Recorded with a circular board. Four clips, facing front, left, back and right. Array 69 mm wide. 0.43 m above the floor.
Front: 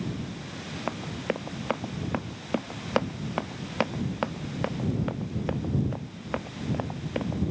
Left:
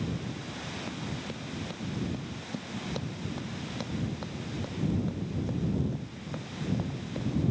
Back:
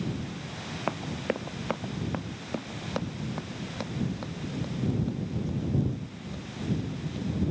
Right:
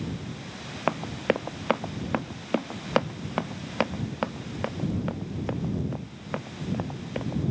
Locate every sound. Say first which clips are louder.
0.9 s running footsteps: right 17 dB, even; 90° right; by 7.4 s 30° right